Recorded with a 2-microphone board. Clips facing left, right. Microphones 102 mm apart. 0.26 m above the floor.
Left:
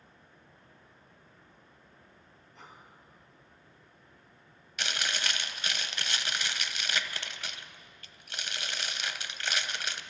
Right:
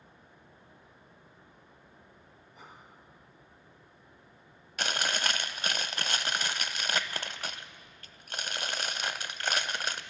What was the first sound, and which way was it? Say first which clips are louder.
Breathing: even; 10° right (ahead or behind).